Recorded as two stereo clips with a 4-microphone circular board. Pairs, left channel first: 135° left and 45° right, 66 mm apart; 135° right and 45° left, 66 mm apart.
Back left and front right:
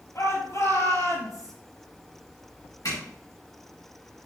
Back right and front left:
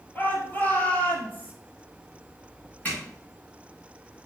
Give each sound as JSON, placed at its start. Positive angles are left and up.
{"t": 0.1, "sound": "a shout", "azimuth_deg": 165, "distance_m": 3.5}
{"t": 2.9, "sound": "a zipper", "azimuth_deg": 160, "distance_m": 4.5}